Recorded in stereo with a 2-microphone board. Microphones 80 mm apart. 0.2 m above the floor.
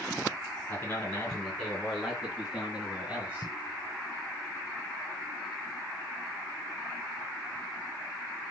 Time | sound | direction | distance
0.7 | a man speaking | 25° left (ahead or behind) | 2.5 m